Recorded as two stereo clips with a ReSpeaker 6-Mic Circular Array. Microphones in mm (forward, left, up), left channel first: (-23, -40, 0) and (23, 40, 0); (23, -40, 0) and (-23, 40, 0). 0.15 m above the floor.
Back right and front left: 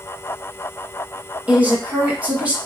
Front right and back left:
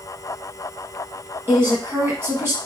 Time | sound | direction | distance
1.5 | a woman speaking | 115° left | 1.1 m